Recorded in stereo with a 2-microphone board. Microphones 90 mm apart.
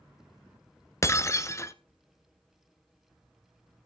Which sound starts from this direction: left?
Breaking glass, at 1.0 s.